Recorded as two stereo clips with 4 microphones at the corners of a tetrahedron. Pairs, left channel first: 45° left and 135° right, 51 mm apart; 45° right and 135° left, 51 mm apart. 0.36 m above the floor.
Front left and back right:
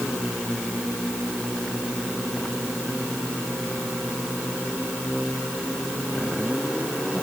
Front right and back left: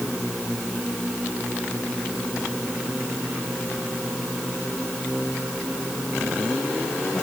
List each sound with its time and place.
Only background noise.